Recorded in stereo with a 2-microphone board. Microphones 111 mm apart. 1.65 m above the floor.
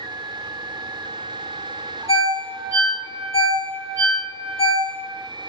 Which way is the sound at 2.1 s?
60° left (ahead or behind).